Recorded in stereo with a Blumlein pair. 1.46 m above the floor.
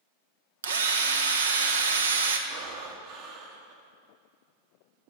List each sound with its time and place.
0.6 s a drill: 65° right, 1.0 m
2.5 s breathing: 45° right, 1.6 m